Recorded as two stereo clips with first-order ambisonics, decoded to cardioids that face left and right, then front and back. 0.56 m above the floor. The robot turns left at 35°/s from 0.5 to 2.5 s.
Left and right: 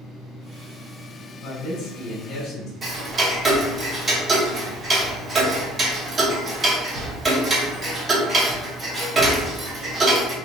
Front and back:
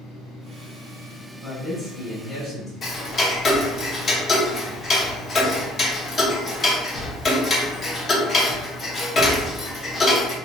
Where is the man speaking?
90° left, 1.4 m; by 2.7 s 50° left, 1.4 m.